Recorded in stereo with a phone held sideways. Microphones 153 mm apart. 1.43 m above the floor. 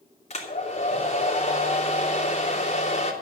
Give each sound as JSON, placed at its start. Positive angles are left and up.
{"t": 0.3, "sound": "a hair dryer", "side_deg": 45, "distance_m": 3.0}